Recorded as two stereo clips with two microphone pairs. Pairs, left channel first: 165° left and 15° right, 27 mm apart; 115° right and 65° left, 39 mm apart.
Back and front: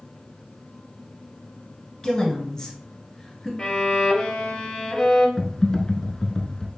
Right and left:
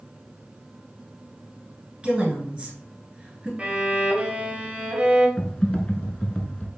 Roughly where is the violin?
Behind left.